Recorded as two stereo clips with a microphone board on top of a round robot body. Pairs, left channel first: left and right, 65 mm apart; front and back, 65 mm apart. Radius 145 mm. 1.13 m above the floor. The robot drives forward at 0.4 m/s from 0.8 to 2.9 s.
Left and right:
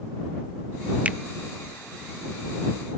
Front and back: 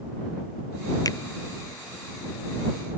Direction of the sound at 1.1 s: 20° right.